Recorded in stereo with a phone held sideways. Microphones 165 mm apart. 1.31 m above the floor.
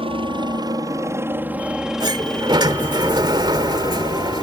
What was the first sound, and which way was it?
A helicopter, 35° right (ahead or behind).